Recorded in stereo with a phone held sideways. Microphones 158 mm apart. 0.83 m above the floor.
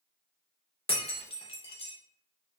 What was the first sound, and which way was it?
Breaking glass, 35° left (ahead or behind).